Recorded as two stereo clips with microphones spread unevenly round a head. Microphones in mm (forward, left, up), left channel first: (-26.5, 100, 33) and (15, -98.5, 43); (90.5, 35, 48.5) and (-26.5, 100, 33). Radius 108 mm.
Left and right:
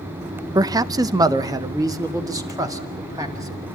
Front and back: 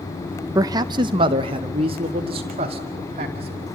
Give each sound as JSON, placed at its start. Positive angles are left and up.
{"t": 0.6, "sound": "a man speaking", "azimuth_deg": -150, "distance_m": 0.5}